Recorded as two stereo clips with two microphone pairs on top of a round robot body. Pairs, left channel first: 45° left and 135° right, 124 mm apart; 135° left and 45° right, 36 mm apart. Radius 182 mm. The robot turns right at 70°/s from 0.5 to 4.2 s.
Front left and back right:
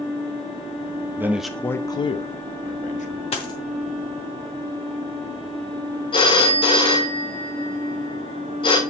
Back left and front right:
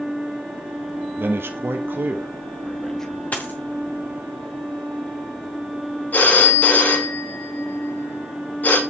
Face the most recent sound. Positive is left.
turn(degrees=95)